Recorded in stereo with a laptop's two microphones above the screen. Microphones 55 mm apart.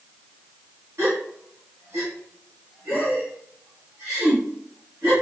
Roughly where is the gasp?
Right.